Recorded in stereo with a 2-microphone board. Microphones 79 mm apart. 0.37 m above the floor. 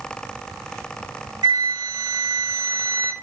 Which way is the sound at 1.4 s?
65° right (ahead or behind).